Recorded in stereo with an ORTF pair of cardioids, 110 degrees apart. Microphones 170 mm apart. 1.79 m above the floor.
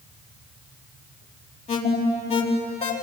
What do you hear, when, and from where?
1.7 s an alarm: 40° left, 4.5 m